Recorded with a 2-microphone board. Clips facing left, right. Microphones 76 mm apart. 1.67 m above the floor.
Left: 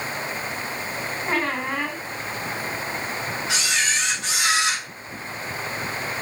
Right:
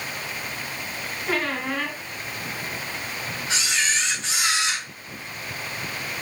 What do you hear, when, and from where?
1.3 s a squeak: 30° left (ahead or behind), 2.5 m
3.5 s a camera shutter: 70° left (ahead or behind), 4 m